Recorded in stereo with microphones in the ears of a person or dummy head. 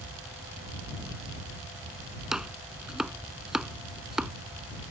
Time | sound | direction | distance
2.3 | chopping | 5° right (ahead or behind) | ?